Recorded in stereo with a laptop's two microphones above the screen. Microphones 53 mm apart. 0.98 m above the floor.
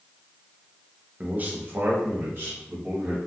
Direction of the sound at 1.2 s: 25° right (ahead or behind).